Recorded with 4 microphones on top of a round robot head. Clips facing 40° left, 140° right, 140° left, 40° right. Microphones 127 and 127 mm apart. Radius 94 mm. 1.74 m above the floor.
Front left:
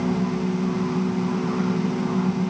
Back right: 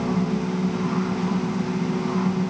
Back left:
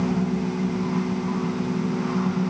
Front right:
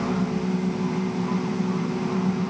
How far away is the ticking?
I don't hear ticking.